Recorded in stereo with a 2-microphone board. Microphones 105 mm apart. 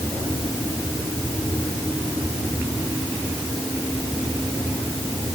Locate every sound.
Only background noise.